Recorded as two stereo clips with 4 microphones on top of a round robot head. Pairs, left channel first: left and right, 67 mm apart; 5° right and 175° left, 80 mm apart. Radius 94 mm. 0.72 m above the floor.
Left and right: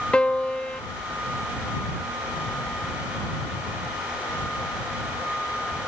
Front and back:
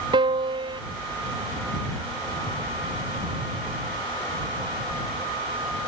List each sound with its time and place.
0.1 s a piano: 165° left